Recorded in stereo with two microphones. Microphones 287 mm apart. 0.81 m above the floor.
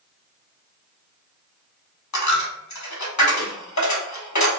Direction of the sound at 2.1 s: 75° left (ahead or behind).